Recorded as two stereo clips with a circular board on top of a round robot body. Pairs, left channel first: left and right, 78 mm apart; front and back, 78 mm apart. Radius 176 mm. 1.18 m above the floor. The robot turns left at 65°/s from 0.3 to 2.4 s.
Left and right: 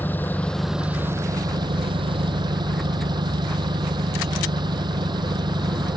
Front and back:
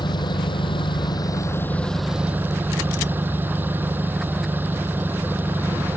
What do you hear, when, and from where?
0.0 s an engine running: 20° left; by 6.0 s 115° right